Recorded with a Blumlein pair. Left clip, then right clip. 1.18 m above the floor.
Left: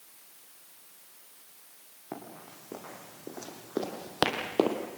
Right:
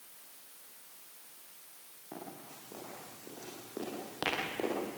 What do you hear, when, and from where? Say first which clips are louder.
2.1 s running footsteps: left 3 dB; 65° left, 6 m; by 4.8 s 50° left, 2.5 m